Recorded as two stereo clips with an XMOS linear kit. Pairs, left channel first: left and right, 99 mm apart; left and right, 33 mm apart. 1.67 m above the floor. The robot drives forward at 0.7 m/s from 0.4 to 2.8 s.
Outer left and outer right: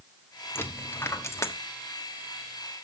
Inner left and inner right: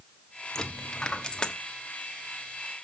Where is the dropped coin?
25° left (ahead or behind), 1.4 m; by 1.5 s 30° left (ahead or behind), 1.2 m.